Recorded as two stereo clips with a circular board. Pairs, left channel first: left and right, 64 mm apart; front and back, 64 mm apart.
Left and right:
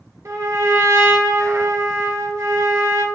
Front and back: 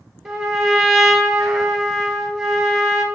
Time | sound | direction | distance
0.2 | a trumpet | 90° right | 1.5 m